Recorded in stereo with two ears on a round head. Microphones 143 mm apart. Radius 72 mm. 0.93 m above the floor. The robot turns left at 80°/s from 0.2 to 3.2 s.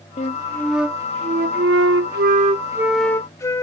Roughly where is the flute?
Ahead left.